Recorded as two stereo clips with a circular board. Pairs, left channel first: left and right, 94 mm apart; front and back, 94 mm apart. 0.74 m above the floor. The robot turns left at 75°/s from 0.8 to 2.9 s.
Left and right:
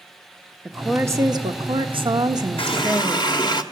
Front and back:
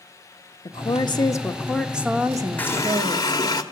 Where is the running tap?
75° left, 1.5 m; by 3.6 s 50° left, 1.5 m.